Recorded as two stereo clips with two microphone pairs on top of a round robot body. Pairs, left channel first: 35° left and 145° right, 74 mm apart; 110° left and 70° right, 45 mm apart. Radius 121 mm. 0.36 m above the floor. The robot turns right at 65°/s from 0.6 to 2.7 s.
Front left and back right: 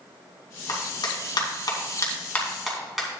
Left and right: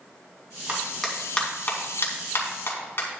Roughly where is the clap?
Ahead.